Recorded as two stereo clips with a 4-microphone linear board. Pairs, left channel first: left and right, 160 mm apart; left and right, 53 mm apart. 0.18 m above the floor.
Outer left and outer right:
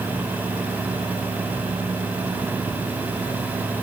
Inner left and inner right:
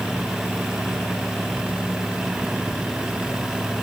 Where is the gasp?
I don't hear a gasp.